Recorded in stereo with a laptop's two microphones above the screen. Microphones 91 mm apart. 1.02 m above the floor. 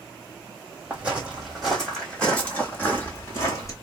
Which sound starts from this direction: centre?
Footsteps, at 0.9 s.